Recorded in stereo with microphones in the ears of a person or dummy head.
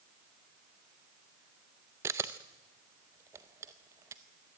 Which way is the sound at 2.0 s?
15° right (ahead or behind).